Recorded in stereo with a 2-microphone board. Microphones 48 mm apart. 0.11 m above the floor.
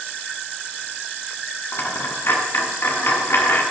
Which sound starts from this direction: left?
A dropped coin, at 1.7 s.